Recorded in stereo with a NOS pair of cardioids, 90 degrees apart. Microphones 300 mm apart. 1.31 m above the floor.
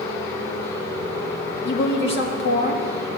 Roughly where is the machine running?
Ahead left.